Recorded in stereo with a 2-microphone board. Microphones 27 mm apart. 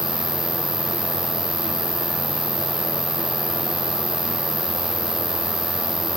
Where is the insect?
10° right (ahead or behind).